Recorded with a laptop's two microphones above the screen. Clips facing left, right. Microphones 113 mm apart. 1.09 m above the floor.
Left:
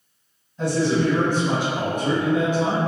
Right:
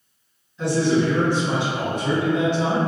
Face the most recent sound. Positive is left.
turn(degrees=40)  # may be behind; listen again after turning